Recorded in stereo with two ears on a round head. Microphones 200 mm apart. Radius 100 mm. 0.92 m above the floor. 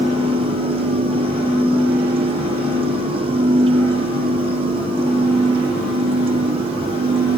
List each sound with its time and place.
Only background noise.